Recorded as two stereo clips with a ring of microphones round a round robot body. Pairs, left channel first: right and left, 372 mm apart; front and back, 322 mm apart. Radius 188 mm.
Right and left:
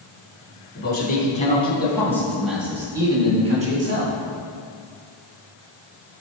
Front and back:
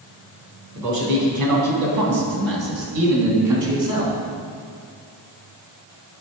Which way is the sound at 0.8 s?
150° right.